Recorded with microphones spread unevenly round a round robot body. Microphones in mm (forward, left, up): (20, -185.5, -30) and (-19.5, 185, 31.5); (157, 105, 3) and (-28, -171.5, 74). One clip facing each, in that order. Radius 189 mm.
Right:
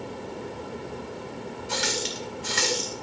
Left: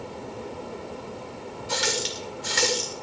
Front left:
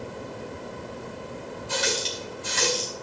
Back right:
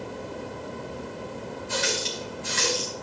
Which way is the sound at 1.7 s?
110° left.